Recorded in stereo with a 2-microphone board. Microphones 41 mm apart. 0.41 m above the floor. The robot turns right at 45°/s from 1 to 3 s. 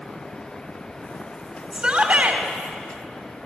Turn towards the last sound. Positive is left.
turn(degrees=-105)